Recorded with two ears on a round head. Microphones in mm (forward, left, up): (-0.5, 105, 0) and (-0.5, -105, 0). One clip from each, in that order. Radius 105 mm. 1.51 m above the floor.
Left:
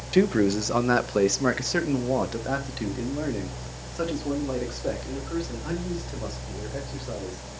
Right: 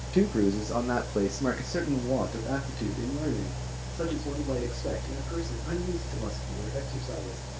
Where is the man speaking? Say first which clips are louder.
Left 4 dB; 50° left (ahead or behind), 1.2 m.